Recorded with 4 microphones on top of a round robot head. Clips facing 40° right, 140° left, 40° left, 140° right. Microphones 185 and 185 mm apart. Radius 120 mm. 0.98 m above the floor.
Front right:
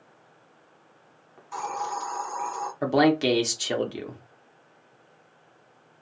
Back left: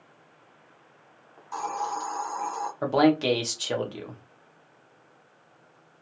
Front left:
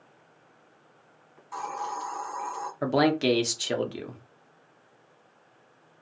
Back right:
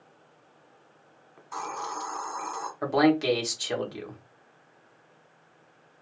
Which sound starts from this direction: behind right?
A hiss, at 1.4 s.